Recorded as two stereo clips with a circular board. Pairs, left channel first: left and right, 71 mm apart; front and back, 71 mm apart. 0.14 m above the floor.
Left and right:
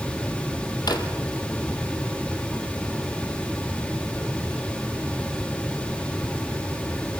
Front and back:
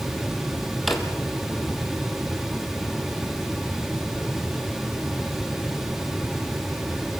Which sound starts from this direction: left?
A drawer, at 0.9 s.